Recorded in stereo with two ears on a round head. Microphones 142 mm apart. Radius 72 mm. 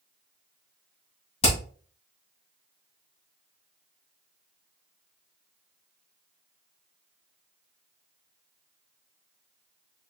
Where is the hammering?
35° left (ahead or behind), 2.5 m.